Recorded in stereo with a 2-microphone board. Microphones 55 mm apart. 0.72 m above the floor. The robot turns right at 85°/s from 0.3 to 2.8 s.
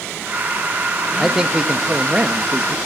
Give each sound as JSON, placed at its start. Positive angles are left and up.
{"t": 1.2, "sound": "a man speaking", "side_deg": -5, "distance_m": 0.8}